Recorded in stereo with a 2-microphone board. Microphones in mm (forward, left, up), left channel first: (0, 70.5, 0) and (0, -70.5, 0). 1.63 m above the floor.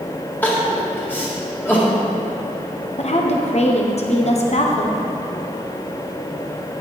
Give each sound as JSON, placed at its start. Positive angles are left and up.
{"t": 0.4, "sound": "crying", "side_deg": 15, "distance_m": 2.0}
{"t": 3.0, "sound": "a woman speaking", "side_deg": 50, "distance_m": 1.0}